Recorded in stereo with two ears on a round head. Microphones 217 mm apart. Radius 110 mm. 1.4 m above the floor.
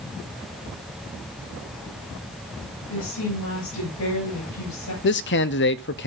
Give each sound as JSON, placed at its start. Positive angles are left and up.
{"t": 2.9, "sound": "a woman speaking", "side_deg": 75, "distance_m": 8.5}
{"t": 5.0, "sound": "a man speaking", "side_deg": 50, "distance_m": 0.5}